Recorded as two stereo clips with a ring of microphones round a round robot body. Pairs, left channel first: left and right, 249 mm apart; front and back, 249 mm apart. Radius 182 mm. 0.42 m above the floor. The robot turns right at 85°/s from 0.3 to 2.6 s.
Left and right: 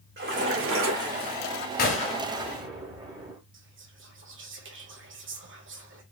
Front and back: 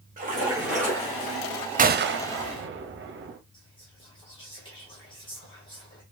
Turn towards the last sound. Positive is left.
turn(degrees=-70)